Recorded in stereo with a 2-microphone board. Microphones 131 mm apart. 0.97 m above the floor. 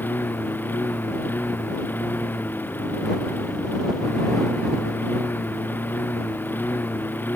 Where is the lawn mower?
15° left (ahead or behind).